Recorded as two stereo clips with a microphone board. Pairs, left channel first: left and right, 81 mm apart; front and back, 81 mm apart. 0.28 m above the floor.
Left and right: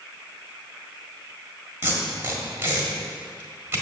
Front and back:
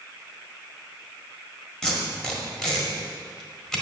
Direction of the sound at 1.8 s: 75° right.